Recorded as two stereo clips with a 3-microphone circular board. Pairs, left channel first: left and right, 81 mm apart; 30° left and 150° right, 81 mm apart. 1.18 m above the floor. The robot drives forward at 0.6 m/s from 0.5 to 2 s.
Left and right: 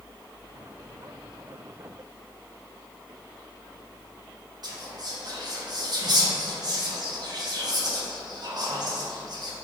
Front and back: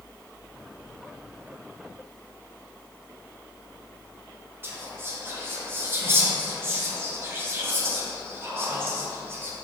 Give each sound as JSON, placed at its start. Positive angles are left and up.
{"t": 4.6, "sound": "whispering", "azimuth_deg": -95, "distance_m": 0.7}